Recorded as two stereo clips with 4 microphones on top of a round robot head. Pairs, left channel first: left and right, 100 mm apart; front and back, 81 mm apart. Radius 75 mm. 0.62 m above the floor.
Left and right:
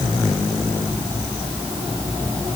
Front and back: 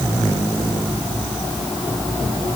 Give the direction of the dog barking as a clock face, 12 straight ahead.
I don't hear a dog barking.